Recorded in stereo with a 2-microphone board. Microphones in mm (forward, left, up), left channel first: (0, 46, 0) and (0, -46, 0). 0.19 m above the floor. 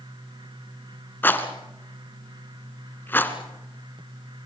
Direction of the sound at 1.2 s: 25° left (ahead or behind).